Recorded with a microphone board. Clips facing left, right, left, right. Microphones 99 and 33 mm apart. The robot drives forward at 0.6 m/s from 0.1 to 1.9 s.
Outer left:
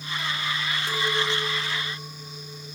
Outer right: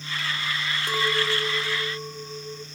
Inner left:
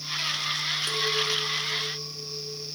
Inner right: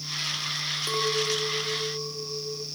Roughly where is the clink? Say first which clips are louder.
Outer right 2 dB, inner right 2 dB; centre.